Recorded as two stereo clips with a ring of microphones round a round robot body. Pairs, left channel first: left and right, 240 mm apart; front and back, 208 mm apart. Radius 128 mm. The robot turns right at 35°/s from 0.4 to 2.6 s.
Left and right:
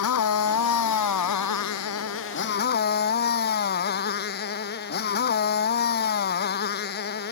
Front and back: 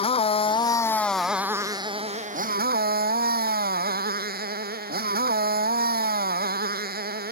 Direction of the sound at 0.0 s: 60° left.